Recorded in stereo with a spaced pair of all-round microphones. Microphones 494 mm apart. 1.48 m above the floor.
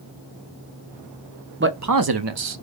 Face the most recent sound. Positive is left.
turn(degrees=-70)  # may be behind; listen again after turning